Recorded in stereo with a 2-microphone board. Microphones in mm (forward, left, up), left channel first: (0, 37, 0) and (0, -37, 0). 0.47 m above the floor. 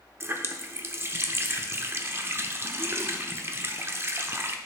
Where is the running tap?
35° right (ahead or behind), 0.7 m.